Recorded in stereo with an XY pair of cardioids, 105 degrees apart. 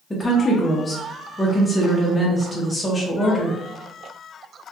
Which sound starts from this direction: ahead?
A woman speaking, at 0.1 s.